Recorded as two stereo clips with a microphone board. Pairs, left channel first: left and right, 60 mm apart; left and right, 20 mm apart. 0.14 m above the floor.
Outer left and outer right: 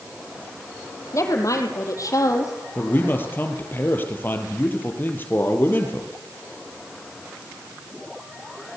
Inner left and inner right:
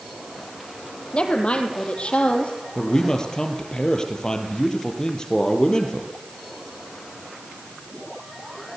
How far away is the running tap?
No running tap in this recording.